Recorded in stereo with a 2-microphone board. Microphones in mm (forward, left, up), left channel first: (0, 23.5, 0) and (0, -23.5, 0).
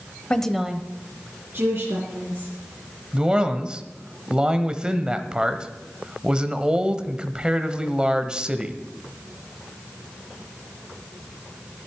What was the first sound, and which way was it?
A woman speaking, 20° left (ahead or behind).